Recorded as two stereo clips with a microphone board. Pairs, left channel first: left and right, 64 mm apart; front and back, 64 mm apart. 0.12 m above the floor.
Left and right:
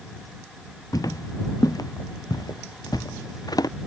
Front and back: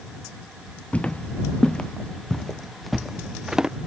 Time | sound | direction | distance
0.9 | footsteps | 70° left | ?